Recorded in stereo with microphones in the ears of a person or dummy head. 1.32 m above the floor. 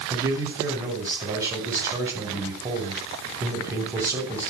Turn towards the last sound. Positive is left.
turn(degrees=-15)  # may be behind; listen again after turning